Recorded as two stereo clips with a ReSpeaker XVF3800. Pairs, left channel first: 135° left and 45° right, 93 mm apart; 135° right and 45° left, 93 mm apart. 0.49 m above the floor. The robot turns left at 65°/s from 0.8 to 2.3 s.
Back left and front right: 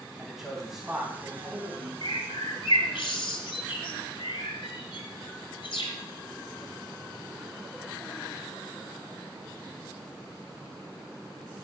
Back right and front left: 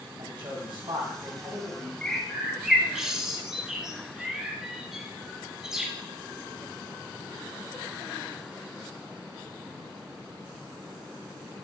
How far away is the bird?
About 1.2 m.